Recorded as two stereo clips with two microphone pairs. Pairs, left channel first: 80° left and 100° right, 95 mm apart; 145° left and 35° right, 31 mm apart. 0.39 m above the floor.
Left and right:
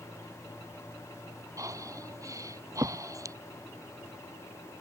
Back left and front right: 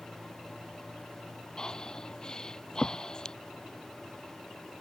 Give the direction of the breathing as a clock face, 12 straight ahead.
5 o'clock.